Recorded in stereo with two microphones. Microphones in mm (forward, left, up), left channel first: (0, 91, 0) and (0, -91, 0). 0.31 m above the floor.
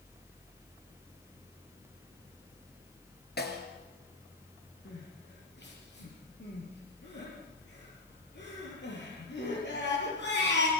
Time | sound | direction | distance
3.4 | a snare drum | 60° left (ahead or behind) | 3 m
4.8 | crying | 75° left (ahead or behind) | 7.5 m